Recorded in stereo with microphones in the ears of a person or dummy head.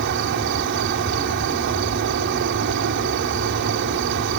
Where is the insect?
55° right (ahead or behind).